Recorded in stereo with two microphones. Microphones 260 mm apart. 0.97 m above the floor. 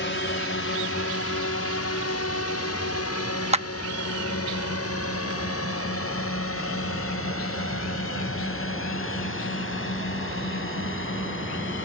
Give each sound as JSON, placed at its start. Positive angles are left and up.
{"t": 0.0, "sound": "a drone", "side_deg": 45}
{"t": 3.5, "sound": "a clap", "side_deg": -25}